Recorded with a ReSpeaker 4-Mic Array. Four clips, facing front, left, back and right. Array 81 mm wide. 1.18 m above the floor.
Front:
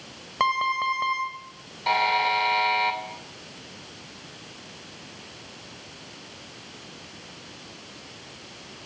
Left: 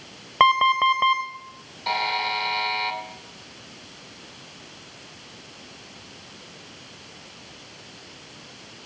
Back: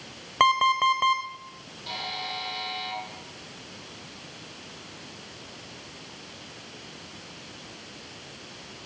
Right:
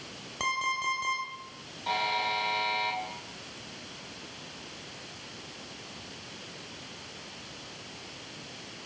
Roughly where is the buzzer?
Ahead left.